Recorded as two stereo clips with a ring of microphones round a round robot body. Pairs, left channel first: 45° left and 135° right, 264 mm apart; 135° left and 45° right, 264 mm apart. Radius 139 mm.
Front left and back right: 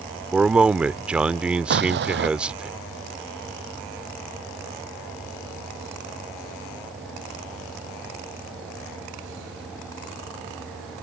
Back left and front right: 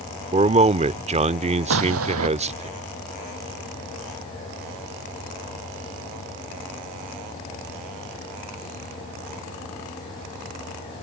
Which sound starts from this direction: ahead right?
A man speaking, at 0.3 s.